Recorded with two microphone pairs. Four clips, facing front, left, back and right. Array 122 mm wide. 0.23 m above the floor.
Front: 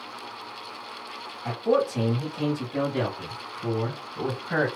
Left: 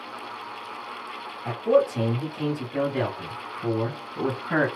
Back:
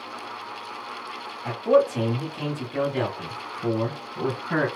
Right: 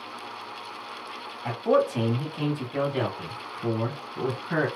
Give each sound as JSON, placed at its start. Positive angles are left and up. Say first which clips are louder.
{"t": 1.4, "sound": "a man speaking", "louder": "left 2 dB, back 4 dB", "azimuth_deg": -100, "distance_m": 1.8}